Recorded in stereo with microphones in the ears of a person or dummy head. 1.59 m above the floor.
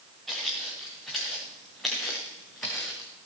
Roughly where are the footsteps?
Centre.